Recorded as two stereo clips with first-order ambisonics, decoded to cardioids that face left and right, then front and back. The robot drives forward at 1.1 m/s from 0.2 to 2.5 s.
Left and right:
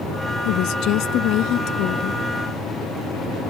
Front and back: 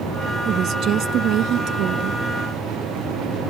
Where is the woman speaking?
125° left; by 2.2 s 135° left.